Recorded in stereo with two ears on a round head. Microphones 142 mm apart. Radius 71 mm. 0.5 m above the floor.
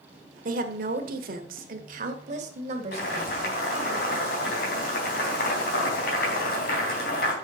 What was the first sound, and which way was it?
A woman speaking, 55° right (ahead or behind).